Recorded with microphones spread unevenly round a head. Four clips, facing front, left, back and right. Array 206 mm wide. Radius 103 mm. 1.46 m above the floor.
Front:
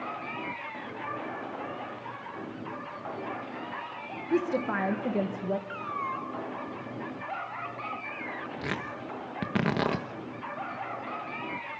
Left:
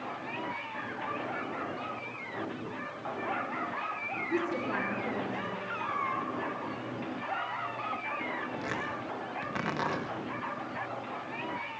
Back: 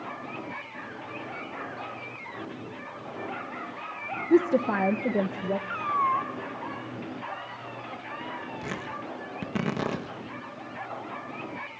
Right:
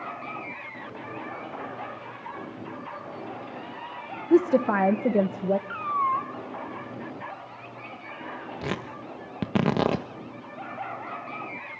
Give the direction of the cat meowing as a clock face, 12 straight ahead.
4 o'clock.